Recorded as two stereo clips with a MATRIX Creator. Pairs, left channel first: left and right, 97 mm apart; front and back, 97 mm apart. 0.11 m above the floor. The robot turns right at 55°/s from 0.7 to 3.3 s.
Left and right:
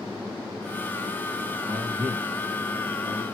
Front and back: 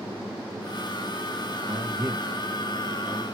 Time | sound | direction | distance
1.7 | a man speaking | 160° right | 1.9 m